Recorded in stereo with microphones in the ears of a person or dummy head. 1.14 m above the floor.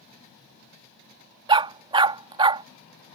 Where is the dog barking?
25° right (ahead or behind).